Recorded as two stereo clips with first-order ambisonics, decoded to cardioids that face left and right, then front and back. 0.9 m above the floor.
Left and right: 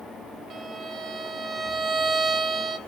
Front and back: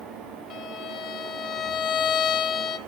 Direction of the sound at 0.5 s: 30° right.